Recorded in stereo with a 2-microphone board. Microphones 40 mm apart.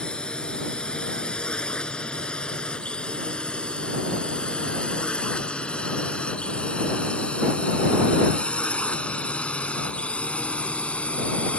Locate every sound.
0.0 s a drone: 20° left (ahead or behind); by 11.6 s 30° left (ahead or behind)